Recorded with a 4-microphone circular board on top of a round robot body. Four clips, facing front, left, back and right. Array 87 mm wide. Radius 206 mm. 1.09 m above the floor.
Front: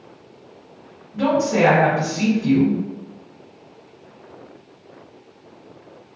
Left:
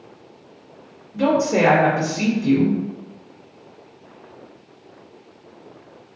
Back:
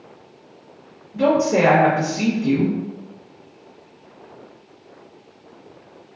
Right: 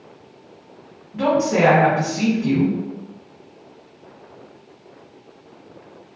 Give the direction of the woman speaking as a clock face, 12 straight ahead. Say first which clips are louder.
Even, back 1 dB; 3 o'clock.